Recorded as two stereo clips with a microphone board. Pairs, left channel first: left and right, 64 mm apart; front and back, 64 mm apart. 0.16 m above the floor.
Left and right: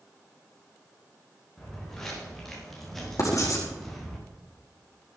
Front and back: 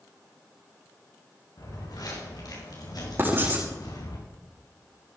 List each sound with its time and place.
1.6 s footsteps: 5° left, 5.5 m
3.2 s writing: 125° left, 4.5 m